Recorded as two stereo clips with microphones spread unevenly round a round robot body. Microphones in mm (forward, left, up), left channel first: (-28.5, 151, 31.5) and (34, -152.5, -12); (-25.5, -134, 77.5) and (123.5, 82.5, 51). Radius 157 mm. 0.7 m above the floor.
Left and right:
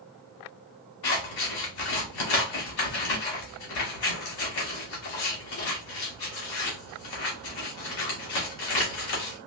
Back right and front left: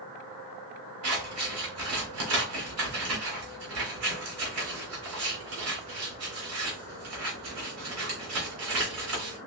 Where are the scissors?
95° left, 1.9 m.